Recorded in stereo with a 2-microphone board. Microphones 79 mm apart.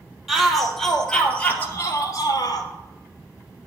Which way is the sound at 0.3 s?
5° right (ahead or behind).